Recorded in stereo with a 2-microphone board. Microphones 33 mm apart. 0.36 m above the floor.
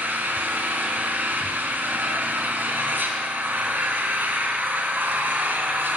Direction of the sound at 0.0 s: 75° right (ahead or behind).